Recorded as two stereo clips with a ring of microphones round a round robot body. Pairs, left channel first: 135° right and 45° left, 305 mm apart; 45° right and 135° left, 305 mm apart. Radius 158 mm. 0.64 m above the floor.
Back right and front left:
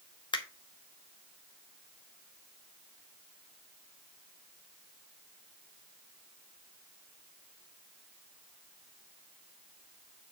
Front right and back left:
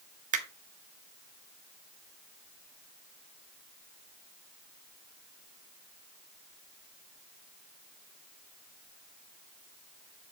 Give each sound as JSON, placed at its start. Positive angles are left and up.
{"t": 0.3, "sound": "a finger snap", "azimuth_deg": 165, "distance_m": 1.0}